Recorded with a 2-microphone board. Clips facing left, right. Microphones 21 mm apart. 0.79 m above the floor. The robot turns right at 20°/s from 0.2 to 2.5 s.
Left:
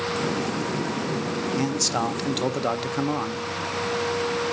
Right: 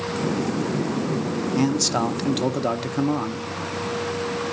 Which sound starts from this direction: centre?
A man speaking, at 1.6 s.